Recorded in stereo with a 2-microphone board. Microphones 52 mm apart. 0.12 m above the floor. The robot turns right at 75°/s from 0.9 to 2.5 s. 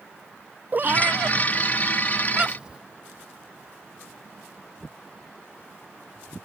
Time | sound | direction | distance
0.7 | a cat meowing | 35° right (ahead or behind) | ?